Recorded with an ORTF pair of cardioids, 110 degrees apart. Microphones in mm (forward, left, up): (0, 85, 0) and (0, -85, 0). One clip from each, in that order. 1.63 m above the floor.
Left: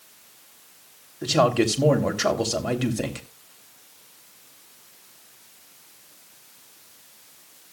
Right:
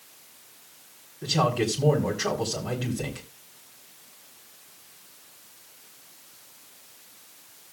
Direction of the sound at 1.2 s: 55° left.